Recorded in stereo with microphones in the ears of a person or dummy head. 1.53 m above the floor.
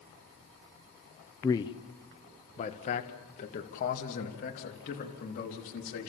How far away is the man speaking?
About 0.7 m.